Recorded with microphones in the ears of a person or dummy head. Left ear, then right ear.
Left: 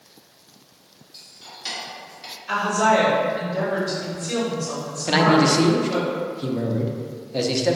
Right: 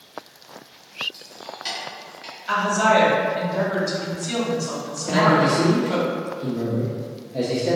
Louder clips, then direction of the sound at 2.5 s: Right 1 dB; 25° right (ahead or behind).